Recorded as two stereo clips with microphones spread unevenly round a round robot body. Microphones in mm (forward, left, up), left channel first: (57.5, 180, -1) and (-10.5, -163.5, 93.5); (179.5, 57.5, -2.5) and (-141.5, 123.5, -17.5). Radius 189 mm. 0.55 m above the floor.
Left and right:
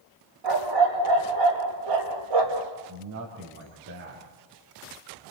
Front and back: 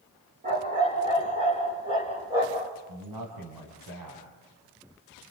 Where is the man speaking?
160° right, 4 m.